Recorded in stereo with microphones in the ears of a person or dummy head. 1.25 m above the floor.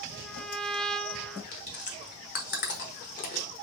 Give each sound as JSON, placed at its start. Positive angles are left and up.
{"t": 0.1, "sound": "a trumpet", "side_deg": 5, "distance_m": 0.6}
{"t": 1.5, "sound": "chewing", "side_deg": 50, "distance_m": 1.2}